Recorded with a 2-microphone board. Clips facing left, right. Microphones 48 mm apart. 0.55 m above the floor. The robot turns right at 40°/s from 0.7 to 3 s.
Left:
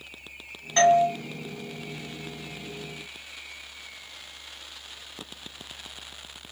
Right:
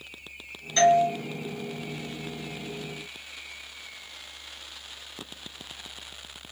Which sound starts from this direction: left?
A doorbell, at 0.8 s.